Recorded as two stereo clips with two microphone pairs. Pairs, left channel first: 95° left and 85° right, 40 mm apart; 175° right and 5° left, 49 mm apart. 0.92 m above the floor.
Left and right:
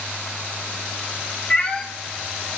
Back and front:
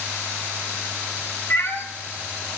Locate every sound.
1.5 s a cat meowing: 155° left, 0.5 m